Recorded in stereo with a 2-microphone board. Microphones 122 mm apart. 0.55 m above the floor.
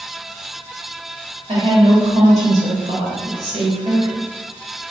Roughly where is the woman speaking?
Right.